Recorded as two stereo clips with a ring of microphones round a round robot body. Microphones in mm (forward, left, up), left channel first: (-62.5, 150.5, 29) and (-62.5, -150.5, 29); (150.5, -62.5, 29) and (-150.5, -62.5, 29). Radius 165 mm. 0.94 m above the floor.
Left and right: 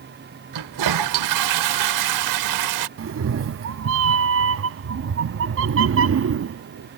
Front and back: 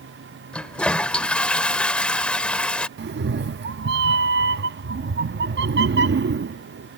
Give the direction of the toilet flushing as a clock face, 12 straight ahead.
3 o'clock.